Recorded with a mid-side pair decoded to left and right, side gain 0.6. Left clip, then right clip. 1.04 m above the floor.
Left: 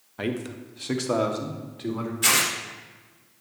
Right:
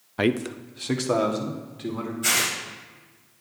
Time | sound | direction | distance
0.2 | a man speaking | 45° right | 0.7 m
2.2 | tearing paper | 70° left | 4 m